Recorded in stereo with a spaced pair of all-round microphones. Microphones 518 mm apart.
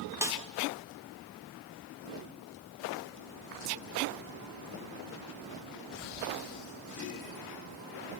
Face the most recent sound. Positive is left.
turn(degrees=-5)  # may be behind; listen again after turning